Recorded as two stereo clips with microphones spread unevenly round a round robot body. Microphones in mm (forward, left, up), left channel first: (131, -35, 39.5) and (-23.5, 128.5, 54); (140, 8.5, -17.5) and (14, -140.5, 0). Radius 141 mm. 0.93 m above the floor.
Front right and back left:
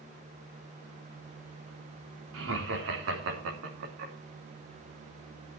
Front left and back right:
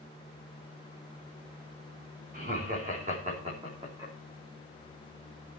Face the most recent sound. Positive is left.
turn(degrees=150)